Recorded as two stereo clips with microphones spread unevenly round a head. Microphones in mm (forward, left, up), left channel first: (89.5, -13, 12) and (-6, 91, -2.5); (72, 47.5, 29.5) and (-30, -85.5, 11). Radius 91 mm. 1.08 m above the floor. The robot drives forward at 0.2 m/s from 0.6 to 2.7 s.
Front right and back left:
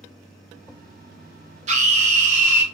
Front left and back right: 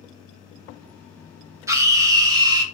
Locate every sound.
1.7 s a scream: 165° left, 0.6 m; by 2.6 s 170° left, 0.8 m